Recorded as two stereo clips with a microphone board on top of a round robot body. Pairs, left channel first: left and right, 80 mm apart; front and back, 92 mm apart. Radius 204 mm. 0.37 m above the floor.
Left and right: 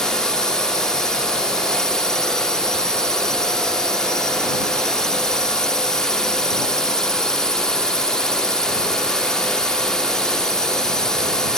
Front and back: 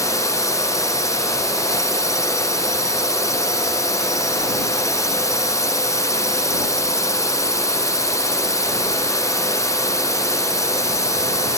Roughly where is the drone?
Ahead.